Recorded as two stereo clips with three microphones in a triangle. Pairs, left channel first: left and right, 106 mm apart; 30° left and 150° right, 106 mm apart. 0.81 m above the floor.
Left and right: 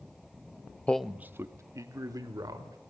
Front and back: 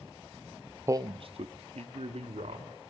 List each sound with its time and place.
0.9 s a man speaking: 160° left, 0.5 m; by 2.8 s 145° right, 3 m